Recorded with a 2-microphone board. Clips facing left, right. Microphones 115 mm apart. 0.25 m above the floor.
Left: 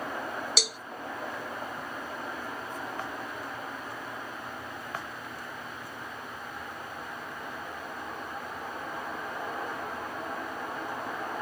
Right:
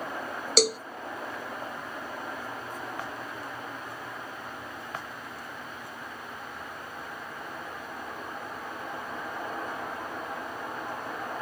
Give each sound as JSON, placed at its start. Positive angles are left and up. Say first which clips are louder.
{"t": 0.6, "sound": "a cowbell", "louder": "right 12 dB", "side_deg": -60}